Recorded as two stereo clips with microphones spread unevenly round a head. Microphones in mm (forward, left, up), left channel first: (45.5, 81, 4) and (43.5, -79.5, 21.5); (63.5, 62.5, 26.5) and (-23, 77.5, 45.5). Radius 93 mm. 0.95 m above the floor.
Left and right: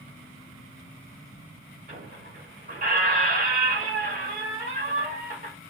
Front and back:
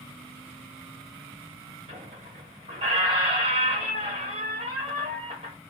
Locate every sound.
1.9 s a squeak: 135° right, 1.7 m